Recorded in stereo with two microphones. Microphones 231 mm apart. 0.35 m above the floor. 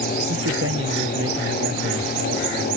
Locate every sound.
0.3 s a man speaking: 75° right (ahead or behind)